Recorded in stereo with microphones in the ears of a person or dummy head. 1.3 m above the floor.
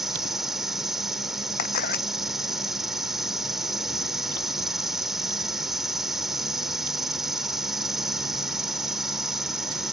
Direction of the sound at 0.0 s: Centre (ahead or behind).